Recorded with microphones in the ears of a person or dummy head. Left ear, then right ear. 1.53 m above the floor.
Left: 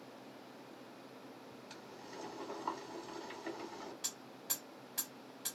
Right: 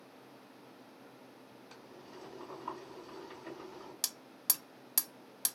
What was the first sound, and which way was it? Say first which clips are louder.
Boiling: left 2 dB; 50° left (ahead or behind).